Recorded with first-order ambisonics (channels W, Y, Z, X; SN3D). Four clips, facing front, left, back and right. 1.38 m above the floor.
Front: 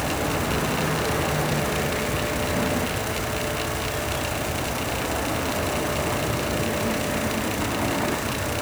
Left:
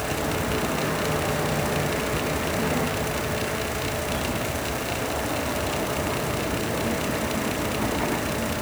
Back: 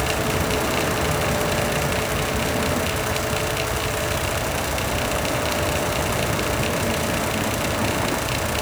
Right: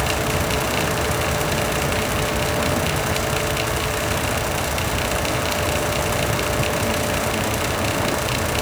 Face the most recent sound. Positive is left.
No sound to turn to.